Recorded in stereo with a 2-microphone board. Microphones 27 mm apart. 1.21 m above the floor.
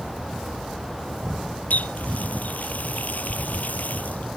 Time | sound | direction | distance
1.7 | a running tap | 70° left (ahead or behind) | ?